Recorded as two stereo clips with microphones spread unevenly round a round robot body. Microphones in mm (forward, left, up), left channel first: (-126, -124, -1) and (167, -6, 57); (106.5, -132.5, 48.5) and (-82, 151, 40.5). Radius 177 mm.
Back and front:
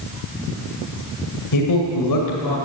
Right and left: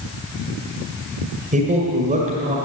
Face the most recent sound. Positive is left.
turn(degrees=-170)